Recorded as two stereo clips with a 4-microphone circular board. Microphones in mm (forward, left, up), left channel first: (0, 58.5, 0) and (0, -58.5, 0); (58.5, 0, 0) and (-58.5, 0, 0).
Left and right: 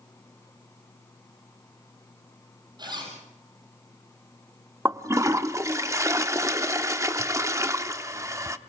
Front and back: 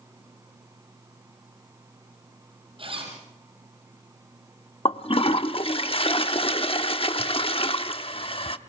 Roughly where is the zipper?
Behind right.